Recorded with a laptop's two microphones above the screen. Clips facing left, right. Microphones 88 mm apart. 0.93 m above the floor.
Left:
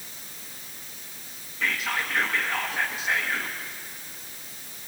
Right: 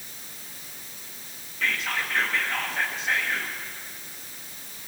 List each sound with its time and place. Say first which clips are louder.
1.6 s whispering: even; 5° left (ahead or behind), 0.7 m